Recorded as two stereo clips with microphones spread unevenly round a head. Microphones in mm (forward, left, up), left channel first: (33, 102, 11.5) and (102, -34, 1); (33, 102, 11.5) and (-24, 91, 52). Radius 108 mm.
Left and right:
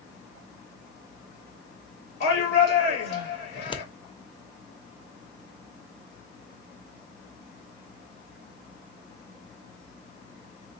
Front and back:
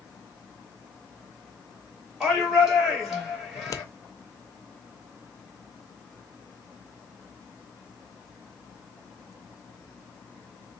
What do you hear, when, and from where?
2.2 s a shout: 105° left, 3 m
3.5 s scissors: 65° left, 0.7 m